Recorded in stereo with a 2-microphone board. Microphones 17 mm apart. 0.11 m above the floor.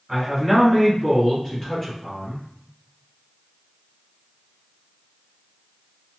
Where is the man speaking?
20° right (ahead or behind), 1.7 m; by 2.5 s 10° left (ahead or behind), 1.9 m.